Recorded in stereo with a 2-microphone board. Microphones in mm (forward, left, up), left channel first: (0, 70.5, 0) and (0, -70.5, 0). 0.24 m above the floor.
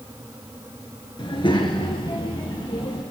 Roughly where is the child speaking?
Left.